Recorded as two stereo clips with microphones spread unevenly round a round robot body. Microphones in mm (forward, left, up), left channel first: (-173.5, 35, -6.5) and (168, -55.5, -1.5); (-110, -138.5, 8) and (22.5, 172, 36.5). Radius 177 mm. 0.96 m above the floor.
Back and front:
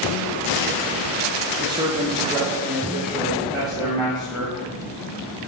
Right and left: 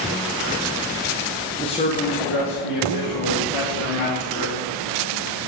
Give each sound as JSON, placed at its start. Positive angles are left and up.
{"t": 1.6, "sound": "a man speaking", "azimuth_deg": -65, "distance_m": 0.7}